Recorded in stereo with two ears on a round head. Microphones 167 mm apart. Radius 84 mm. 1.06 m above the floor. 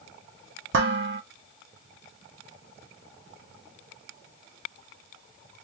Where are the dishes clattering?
65° right (ahead or behind), 1.2 m.